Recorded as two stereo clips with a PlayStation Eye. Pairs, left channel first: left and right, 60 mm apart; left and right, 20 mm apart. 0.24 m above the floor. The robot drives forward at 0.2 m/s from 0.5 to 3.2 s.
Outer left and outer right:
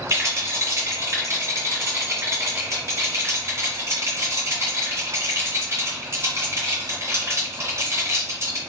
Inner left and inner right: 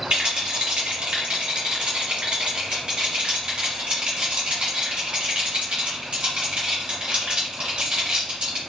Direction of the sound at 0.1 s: 45° right (ahead or behind).